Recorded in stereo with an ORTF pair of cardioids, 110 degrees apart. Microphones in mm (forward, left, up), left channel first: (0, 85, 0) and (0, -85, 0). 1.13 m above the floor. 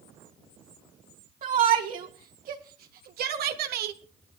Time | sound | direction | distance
1.4 | a shout | 55° right | 3 m